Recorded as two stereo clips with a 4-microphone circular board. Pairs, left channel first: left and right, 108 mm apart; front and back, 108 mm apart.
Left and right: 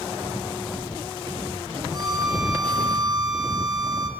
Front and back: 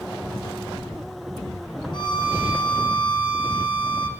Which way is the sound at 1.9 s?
40° right.